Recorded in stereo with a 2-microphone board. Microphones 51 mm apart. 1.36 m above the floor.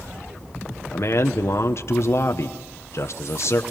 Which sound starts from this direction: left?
A man speaking, at 0.9 s.